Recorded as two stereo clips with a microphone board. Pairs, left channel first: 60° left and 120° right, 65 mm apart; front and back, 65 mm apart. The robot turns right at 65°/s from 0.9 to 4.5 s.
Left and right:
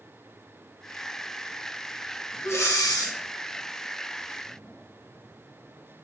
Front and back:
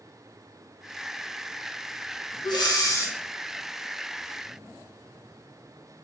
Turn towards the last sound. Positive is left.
turn(degrees=140)